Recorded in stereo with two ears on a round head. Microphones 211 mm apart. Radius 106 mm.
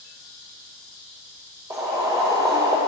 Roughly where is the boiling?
Centre.